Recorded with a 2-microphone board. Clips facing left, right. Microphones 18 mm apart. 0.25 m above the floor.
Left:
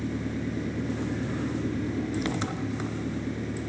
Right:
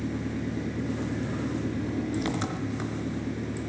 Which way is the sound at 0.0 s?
5° left (ahead or behind).